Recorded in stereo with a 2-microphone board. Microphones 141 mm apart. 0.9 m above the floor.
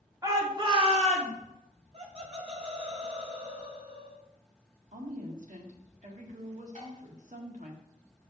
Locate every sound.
0.2 s a shout: 25° right (ahead or behind), 1.9 m; by 1.3 s 55° right (ahead or behind), 1.7 m
1.9 s laughter: 45° right (ahead or behind), 1.0 m
4.9 s a woman speaking: 65° right (ahead or behind), 1.6 m
6.8 s dishes clattering: 65° right (ahead or behind), 3.5 m